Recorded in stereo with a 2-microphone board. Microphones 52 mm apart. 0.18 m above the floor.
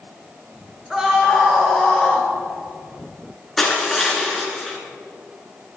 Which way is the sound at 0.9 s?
15° right (ahead or behind).